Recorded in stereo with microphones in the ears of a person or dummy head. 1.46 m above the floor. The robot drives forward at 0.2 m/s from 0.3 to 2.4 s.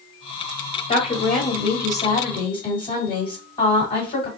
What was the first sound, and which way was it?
A woman speaking, 35° left (ahead or behind).